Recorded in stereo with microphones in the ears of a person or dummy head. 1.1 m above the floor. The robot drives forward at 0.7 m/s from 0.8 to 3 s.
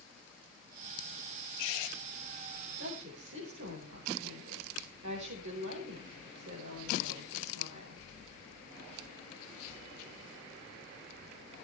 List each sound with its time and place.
2.8 s a woman speaking: 65° right (ahead or behind), 5 m